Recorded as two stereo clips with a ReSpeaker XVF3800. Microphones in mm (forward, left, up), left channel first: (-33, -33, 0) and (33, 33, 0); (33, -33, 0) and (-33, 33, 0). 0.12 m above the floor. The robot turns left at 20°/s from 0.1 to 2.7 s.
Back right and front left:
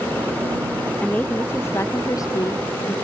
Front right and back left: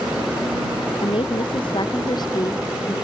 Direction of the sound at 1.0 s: 60° right.